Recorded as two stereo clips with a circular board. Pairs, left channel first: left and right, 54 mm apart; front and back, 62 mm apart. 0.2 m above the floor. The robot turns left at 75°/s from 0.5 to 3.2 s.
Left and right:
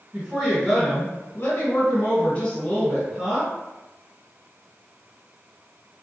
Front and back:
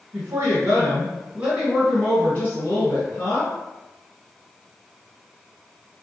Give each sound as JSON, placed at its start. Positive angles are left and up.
{"t": 0.1, "sound": "a woman speaking", "azimuth_deg": -175, "distance_m": 1.6}